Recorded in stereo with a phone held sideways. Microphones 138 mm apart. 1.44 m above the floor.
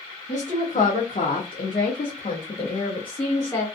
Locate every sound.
0.3 s a woman speaking: 55° left (ahead or behind), 0.9 m; by 3.6 s 30° left (ahead or behind), 1.4 m